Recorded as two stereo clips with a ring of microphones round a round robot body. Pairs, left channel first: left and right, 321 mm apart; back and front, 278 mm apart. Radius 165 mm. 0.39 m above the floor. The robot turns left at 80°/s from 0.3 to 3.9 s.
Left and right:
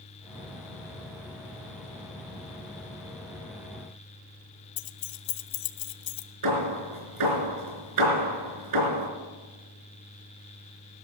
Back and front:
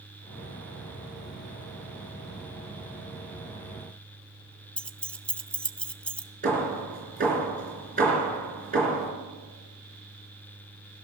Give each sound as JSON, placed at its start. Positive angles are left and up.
{"t": 4.8, "sound": "keys jangling", "azimuth_deg": 95, "distance_m": 0.9}
{"t": 6.4, "sound": "hammering", "azimuth_deg": -65, "distance_m": 4.0}